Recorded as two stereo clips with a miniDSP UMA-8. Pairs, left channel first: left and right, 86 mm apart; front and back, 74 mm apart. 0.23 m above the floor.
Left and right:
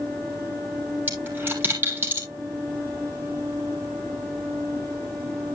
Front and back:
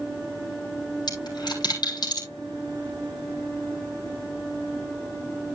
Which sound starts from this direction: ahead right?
A dropped coin, at 1.1 s.